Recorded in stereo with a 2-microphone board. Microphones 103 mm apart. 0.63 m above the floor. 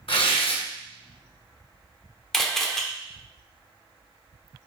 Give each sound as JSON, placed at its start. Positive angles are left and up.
{"t": 0.1, "sound": "tearing paper", "side_deg": 65, "distance_m": 1.1}
{"t": 2.3, "sound": "a camera shutter", "side_deg": 5, "distance_m": 0.7}